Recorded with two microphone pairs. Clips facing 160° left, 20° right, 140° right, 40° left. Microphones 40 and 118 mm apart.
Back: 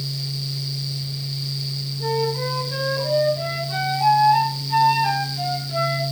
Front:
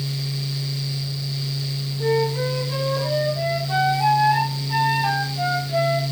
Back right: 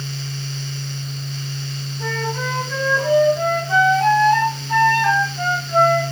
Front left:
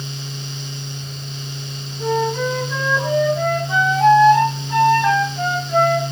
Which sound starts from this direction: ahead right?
A flute, at 2.0 s.